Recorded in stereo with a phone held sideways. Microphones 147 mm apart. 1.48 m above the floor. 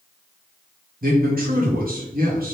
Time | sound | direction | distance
1.0 | a man speaking | 75° right (ahead or behind) | 1.1 m